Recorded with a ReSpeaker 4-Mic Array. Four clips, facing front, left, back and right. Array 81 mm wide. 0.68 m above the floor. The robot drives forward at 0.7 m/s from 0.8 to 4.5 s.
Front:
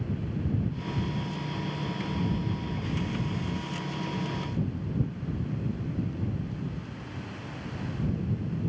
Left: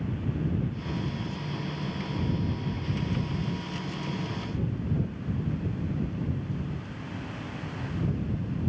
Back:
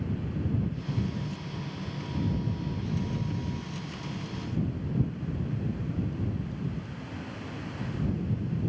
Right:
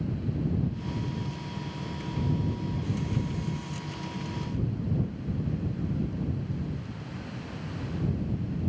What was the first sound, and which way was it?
Only background noise.